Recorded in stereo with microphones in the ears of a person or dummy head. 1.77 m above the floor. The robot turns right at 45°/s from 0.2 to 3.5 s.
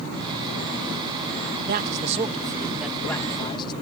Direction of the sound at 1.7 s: 55° right.